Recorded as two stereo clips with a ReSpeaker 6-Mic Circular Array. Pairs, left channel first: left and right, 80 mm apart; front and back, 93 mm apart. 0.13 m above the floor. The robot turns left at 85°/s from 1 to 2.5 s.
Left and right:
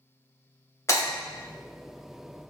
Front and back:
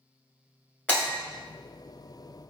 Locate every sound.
0.9 s breaking glass: 65° left, 1.1 m; by 1.1 s 60° left, 1.1 m